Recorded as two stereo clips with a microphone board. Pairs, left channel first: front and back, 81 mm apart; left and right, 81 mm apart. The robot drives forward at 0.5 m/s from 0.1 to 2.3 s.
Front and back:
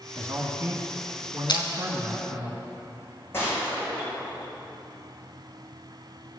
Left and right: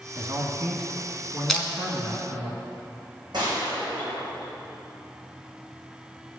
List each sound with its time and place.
0.1 s a man speaking: 135° right, 1.8 m; by 2.5 s 150° right, 2.5 m
1.5 s crushing: 5° left, 1.4 m
3.3 s a gunshot: 60° right, 3.5 m